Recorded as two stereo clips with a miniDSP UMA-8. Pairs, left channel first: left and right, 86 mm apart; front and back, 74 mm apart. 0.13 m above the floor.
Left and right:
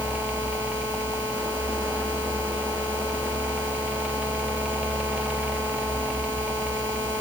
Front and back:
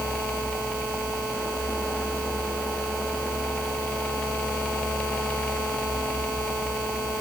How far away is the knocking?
I don't hear knocking.